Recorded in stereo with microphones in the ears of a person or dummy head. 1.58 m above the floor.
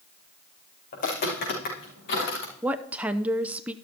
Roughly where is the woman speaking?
Centre.